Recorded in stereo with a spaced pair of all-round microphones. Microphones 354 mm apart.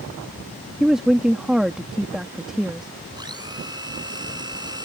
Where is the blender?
10° right (ahead or behind).